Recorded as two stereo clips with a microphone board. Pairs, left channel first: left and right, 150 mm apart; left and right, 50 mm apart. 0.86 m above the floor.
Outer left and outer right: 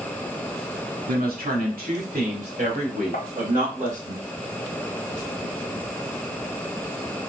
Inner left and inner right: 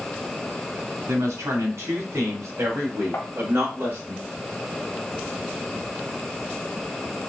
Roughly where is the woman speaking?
Right.